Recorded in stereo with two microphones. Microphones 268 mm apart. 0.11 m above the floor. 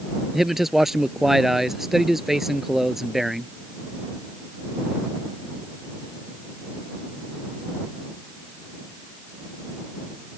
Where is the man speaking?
Centre (ahead or behind).